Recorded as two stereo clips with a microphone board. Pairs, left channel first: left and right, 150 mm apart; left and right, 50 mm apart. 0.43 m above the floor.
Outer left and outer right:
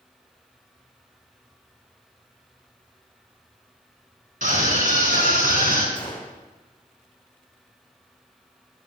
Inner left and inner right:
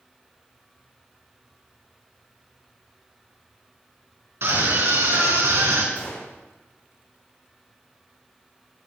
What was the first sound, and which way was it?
A scream, 60° right (ahead or behind).